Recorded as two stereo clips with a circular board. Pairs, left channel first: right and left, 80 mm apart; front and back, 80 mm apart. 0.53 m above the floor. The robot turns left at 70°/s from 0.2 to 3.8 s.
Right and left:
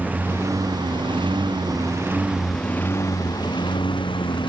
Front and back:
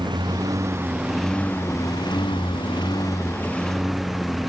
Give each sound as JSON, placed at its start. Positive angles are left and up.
{"t": 0.0, "sound": "a lawn mower", "azimuth_deg": 160}